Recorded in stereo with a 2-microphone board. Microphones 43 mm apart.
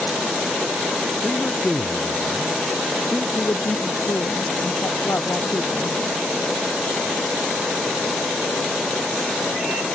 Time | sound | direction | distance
1.2 | a man speaking | 25° left (ahead or behind) | ?
3.4 | a woman speaking | 70° left (ahead or behind) | ?